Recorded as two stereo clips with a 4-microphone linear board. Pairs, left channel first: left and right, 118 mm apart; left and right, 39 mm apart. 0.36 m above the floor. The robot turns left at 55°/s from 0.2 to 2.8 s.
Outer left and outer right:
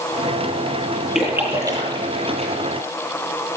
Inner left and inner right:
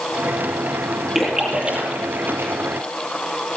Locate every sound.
1.1 s a splash: 5° right (ahead or behind), 9 m; by 2.5 s 80° right, 9 m